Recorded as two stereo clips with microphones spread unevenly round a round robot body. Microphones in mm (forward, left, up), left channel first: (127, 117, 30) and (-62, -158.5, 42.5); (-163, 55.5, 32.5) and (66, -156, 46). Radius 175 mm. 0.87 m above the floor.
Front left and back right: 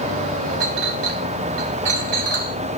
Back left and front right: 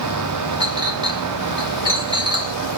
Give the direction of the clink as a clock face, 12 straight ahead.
4 o'clock.